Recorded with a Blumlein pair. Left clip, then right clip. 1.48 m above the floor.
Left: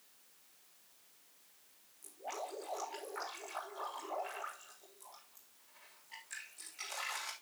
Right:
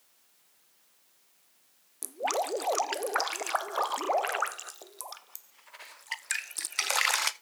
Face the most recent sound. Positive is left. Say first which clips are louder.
# right 14 dB
turn(degrees=-50)